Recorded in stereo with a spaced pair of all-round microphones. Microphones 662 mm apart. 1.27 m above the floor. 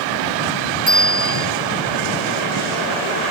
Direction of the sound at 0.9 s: 10° left (ahead or behind).